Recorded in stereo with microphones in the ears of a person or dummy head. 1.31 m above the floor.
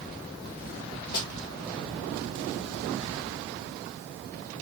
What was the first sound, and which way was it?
A snare drum, 65° left (ahead or behind).